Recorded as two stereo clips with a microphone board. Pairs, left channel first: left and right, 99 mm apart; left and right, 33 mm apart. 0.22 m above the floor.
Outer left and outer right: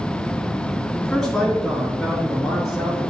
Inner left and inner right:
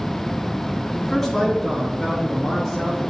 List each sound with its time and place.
1.0 s a man speaking: 5° left (ahead or behind), 2.5 m; by 3.1 s 5° right (ahead or behind), 5 m